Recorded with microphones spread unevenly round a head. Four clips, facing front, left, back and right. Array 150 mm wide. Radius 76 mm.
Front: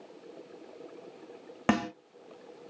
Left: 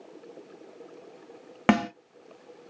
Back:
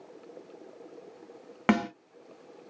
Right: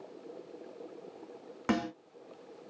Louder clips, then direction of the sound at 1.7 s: Left 8 dB, back 2 dB; 90° left.